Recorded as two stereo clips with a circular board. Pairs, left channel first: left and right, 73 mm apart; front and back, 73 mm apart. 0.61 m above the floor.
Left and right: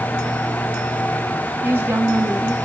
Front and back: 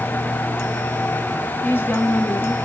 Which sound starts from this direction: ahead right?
A woman speaking, at 1.6 s.